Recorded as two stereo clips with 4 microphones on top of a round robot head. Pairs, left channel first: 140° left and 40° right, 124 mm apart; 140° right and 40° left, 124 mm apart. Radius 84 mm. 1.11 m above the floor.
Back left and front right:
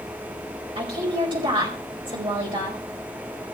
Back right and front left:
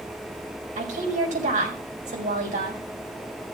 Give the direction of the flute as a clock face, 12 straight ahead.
No flute in this recording.